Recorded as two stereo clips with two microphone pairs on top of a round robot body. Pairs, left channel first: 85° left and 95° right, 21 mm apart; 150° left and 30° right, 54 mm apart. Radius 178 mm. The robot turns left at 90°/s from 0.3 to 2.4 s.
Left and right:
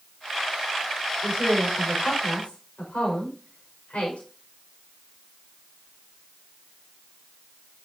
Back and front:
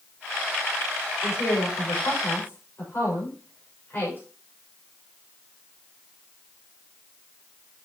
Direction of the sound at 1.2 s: 160° right.